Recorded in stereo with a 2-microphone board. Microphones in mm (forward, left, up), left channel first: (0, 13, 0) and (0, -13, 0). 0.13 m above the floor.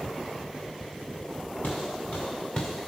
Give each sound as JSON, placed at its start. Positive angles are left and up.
{"t": 1.6, "sound": "footsteps", "side_deg": 75, "distance_m": 2.0}